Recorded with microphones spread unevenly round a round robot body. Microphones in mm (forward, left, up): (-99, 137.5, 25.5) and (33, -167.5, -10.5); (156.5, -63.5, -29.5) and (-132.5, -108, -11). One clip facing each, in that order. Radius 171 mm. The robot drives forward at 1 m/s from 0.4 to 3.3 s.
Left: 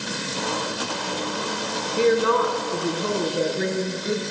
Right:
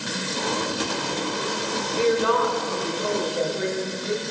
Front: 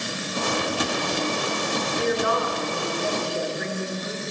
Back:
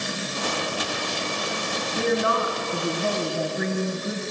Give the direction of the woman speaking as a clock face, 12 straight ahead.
6 o'clock.